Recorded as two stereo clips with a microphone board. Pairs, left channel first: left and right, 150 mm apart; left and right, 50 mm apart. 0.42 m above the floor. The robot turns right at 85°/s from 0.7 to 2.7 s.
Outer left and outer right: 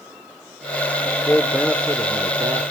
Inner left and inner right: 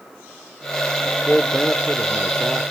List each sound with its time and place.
1.1 s a man speaking: 135° left, 0.8 m; by 2.7 s 85° right, 0.8 m